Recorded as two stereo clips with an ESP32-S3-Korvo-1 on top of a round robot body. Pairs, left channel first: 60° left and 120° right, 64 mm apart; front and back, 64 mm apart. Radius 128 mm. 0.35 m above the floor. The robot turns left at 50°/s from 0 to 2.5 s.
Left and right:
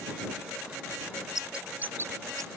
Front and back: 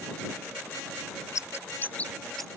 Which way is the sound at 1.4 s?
35° right.